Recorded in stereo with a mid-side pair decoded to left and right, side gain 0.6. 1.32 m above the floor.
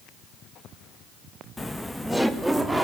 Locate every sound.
1.6 s laughter: 15° left, 1.0 m; by 2.9 s 10° right, 2.5 m